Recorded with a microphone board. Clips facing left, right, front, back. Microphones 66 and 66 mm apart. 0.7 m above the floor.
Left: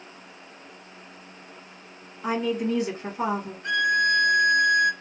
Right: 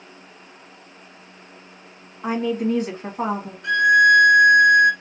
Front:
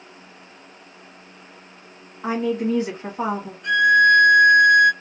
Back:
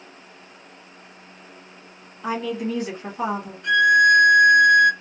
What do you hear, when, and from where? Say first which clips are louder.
2.2 s a woman speaking: right 3 dB, front 3 dB; 55° right, 1.5 m
3.6 s a violin: right 9 dB, even; 90° right, 1.5 m